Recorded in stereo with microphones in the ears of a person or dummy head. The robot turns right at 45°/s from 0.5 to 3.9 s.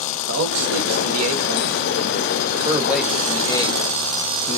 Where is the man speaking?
115° right, 1.6 m; by 4.6 s 40° left, 1.6 m.